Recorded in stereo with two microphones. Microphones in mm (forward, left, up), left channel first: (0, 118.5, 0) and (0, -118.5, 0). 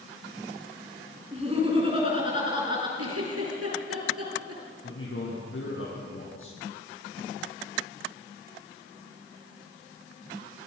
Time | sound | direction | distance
1.3 | laughter | 25° right (ahead or behind) | 6.5 m
3.0 | a giggle | 75° right (ahead or behind) | 6 m
4.8 | a man speaking | 60° left (ahead or behind) | 6 m